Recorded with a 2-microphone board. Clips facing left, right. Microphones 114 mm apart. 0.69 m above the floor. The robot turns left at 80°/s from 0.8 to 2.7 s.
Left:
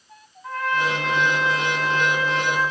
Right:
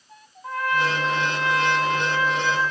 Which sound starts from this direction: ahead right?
A trumpet, at 0.4 s.